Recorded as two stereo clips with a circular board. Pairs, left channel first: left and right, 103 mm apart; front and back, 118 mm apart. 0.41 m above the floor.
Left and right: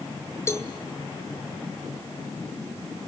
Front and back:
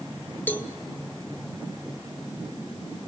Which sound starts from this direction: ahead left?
A cowbell, at 0.5 s.